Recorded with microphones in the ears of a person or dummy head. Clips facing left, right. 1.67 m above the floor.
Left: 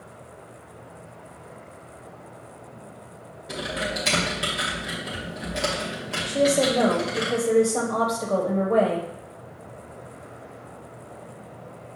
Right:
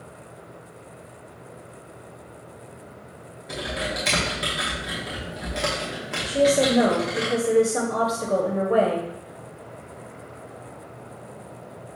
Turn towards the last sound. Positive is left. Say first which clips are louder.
# right 2 dB
turn(degrees=-10)  # may be behind; listen again after turning